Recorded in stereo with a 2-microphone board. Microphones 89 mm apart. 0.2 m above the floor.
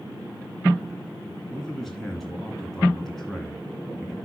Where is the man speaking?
5° left (ahead or behind), 2.5 m.